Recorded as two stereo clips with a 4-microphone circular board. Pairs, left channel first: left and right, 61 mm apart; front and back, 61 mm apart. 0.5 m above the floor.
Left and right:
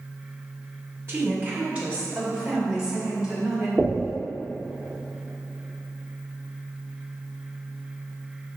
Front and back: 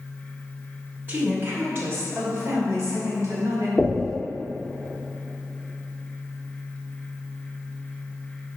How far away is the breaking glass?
I don't hear breaking glass.